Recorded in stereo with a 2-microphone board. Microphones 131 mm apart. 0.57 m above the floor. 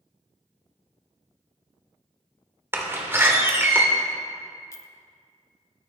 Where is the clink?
25° left (ahead or behind), 0.5 m.